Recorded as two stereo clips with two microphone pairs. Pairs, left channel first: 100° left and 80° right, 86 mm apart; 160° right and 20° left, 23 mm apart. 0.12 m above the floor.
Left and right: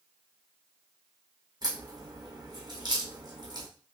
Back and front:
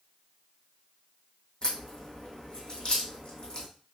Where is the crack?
115° right, 2.5 m.